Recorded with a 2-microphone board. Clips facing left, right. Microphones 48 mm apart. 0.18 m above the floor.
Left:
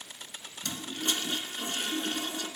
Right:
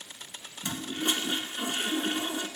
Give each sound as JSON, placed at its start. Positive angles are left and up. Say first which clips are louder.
{"t": 0.6, "sound": "a toilet flushing", "louder": "right 3 dB", "side_deg": -20, "distance_m": 1.2}